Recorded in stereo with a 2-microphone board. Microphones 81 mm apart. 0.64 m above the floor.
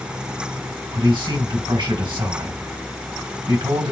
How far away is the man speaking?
About 3.5 m.